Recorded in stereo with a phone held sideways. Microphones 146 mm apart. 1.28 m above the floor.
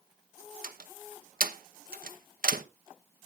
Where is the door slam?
80° right, 0.9 m.